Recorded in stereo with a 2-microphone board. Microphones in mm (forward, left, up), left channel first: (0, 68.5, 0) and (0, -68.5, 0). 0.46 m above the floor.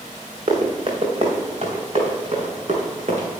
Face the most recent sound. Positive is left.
turn(degrees=-60)  # may be behind; listen again after turning